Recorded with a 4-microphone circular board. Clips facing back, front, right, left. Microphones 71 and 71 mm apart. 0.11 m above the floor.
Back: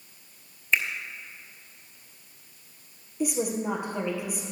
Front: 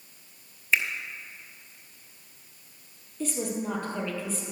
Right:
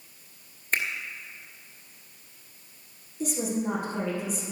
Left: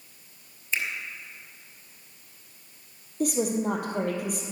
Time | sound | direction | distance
0.7 | a finger snap | 80° right | 1.4 m
3.2 | a woman speaking | 105° left | 2.5 m